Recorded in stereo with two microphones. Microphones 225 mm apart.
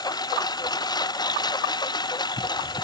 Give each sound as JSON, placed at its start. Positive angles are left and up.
{"t": 0.0, "sound": "a lawn mower", "side_deg": 20}